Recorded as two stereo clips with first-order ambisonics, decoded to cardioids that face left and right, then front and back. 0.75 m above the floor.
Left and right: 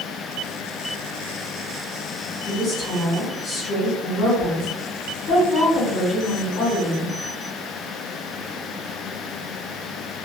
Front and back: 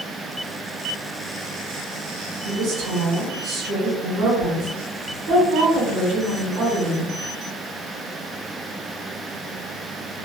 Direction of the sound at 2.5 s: 165° left.